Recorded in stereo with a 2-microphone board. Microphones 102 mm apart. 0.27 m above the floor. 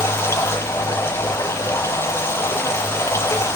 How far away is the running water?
About 4 m.